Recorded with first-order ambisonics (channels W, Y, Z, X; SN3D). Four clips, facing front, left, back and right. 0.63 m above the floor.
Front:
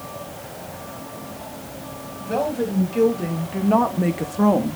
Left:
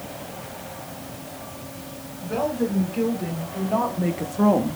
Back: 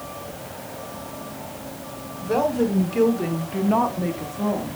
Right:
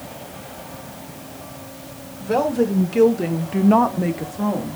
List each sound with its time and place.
2.2 s a woman speaking: 110° right, 2 m; by 4.8 s 45° left, 0.9 m